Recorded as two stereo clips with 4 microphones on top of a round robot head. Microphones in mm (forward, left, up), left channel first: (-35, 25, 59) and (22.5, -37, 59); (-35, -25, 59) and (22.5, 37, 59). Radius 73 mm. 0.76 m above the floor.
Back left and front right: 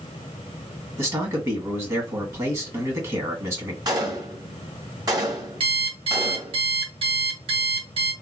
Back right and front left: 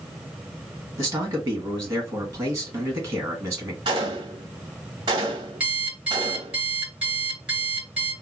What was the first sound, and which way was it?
A man speaking, 5° right.